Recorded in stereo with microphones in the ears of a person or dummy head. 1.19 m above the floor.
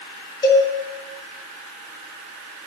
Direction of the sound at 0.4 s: 20° left (ahead or behind).